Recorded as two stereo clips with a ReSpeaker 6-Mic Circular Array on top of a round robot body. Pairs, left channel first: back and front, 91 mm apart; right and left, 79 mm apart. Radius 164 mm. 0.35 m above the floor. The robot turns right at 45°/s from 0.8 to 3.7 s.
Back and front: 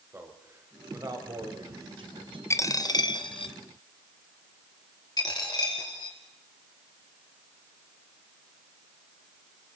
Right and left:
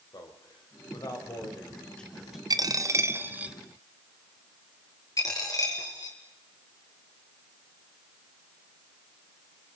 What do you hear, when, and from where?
0.1 s a man speaking: 65° right, 3 m; by 2.4 s 10° left, 3 m
2.5 s a dropped coin: 120° left, 1.0 m; by 3.5 s 170° left, 1.0 m
5.2 s a dropped coin: 135° right, 2.5 m